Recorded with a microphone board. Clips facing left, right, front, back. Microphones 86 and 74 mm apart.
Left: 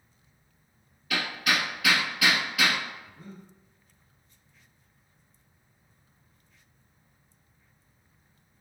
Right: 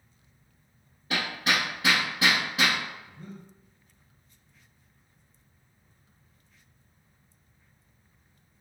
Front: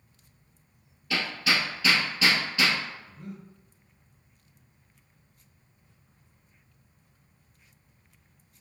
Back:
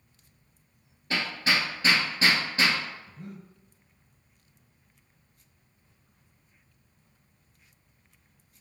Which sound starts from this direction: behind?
Breathing, at 3.1 s.